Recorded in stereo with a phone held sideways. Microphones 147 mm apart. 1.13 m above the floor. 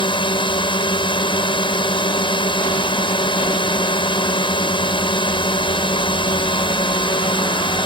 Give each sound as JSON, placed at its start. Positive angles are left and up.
{"t": 0.0, "sound": "a drone", "side_deg": 35}